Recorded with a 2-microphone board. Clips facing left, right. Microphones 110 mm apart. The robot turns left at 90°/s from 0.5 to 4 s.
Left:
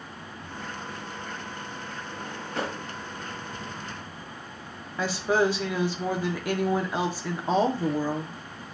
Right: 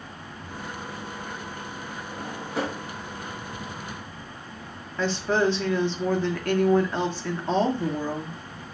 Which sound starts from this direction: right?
A drawer, at 2.1 s.